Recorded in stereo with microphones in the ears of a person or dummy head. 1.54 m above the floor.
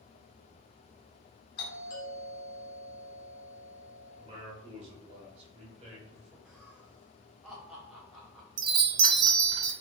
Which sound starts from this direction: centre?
Laughter, at 6.5 s.